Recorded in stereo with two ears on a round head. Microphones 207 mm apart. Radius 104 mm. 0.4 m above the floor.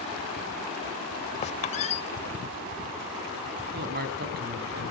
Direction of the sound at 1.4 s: 30° left (ahead or behind).